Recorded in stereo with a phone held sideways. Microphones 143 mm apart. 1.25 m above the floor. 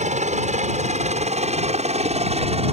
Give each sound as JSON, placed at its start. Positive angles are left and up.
{"t": 0.0, "sound": "a helicopter", "side_deg": -55}